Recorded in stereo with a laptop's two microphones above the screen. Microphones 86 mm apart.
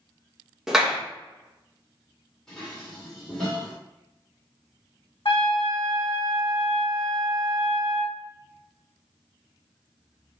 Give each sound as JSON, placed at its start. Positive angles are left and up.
{"t": 0.7, "sound": "a clap", "side_deg": -5, "distance_m": 0.9}
{"t": 2.5, "sound": "dishes clattering", "side_deg": 10, "distance_m": 2.0}
{"t": 5.2, "sound": "a trumpet", "side_deg": 70, "distance_m": 1.7}